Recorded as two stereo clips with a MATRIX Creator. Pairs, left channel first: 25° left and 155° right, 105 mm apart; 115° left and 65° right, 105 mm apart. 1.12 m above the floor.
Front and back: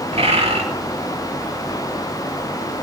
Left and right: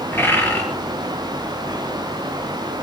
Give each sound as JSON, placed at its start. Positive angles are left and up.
{"t": 0.1, "sound": "a bird", "azimuth_deg": 180, "distance_m": 5.0}